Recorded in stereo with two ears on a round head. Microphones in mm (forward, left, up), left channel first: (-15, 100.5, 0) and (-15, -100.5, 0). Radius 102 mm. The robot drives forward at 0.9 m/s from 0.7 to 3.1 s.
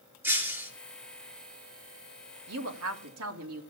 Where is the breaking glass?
10° right (ahead or behind), 5 m.